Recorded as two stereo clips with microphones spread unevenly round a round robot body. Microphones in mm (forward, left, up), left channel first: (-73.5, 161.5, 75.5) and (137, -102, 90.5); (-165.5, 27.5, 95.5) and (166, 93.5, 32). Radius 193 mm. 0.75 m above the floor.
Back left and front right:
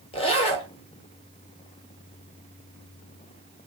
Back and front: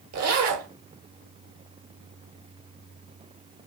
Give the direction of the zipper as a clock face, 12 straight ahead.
10 o'clock.